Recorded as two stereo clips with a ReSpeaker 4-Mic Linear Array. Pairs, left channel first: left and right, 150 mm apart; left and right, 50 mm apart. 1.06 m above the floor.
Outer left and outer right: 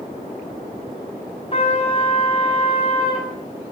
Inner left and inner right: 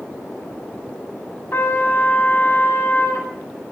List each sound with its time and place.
1.5 s a trumpet: 40° left (ahead or behind), 8.5 m